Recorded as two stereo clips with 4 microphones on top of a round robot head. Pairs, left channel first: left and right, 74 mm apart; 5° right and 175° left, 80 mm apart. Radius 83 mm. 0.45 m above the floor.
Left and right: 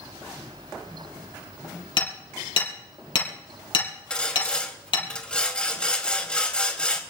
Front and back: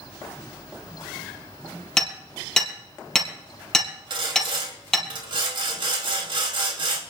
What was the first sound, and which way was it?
Hammering, 80° left.